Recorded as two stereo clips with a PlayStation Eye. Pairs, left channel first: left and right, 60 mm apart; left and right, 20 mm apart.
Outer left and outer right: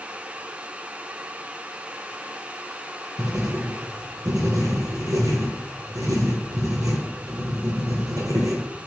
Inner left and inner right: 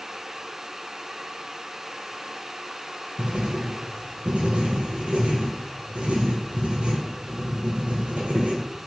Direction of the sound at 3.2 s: 75° right (ahead or behind).